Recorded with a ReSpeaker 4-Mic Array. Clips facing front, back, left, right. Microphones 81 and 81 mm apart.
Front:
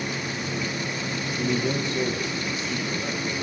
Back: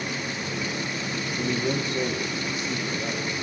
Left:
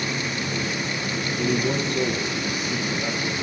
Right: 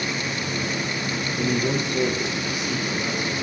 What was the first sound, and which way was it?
A man speaking, 105° right.